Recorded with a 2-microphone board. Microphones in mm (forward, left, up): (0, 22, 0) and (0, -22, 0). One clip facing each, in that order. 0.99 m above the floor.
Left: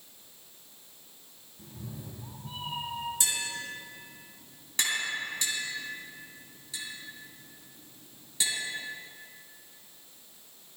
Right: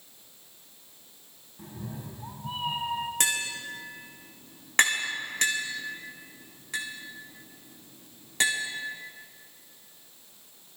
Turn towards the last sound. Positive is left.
turn(degrees=-55)  # may be behind; listen again after turning